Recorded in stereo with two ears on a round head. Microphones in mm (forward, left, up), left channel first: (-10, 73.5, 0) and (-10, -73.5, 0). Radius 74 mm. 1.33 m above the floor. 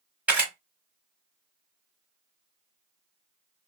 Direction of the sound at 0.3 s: 10° right (ahead or behind).